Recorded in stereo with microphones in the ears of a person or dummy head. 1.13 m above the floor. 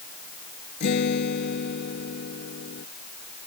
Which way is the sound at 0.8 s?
55° left (ahead or behind).